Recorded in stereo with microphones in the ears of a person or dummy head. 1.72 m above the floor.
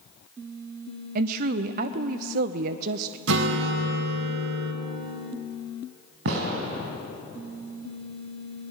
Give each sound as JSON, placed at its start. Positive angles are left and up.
{"t": 1.1, "sound": "a woman speaking", "side_deg": -45, "distance_m": 0.5}
{"t": 3.3, "sound": "a guitar", "side_deg": -65, "distance_m": 1.9}
{"t": 6.2, "sound": "a gunshot", "side_deg": -70, "distance_m": 4.0}